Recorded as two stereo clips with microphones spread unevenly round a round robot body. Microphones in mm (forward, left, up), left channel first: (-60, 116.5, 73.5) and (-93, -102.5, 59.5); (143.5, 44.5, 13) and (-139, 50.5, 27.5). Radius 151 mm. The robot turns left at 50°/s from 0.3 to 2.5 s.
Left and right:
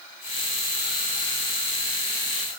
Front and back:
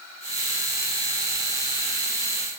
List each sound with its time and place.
Only background noise.